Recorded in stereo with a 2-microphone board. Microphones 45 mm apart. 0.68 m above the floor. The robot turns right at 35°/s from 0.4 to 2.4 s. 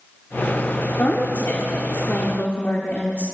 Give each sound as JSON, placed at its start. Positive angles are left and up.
{"t": 1.0, "sound": "a woman speaking", "azimuth_deg": 70, "distance_m": 1.5}